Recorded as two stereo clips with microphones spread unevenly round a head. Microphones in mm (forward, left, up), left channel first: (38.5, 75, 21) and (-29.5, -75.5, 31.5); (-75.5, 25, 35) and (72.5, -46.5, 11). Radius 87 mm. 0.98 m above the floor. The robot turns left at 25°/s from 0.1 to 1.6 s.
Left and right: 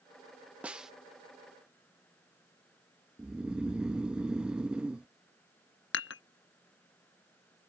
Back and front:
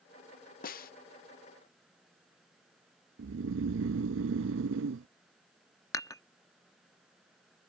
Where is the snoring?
30° right.